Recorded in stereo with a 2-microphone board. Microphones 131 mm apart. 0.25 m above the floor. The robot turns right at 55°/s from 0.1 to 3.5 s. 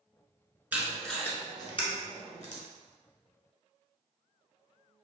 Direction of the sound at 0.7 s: 15° right (ahead or behind).